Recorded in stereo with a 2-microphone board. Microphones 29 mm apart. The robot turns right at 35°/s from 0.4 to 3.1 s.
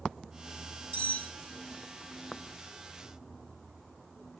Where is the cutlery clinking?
45° left (ahead or behind), 1.9 m; by 1.3 s 55° left (ahead or behind), 1.9 m.